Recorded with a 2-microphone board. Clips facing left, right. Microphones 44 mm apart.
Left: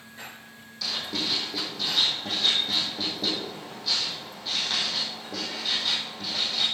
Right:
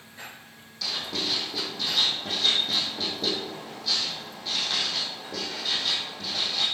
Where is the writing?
Centre (ahead or behind), 4 m.